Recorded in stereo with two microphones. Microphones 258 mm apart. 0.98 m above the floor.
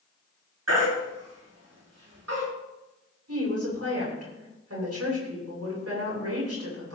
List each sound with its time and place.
0.7 s a baby crying: 75° right (ahead or behind), 7.5 m
3.3 s a woman speaking: 75° right (ahead or behind), 8 m